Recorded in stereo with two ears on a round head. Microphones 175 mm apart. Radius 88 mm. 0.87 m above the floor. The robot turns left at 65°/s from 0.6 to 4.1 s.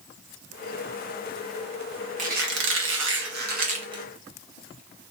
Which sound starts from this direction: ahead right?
A squeak, at 2.2 s.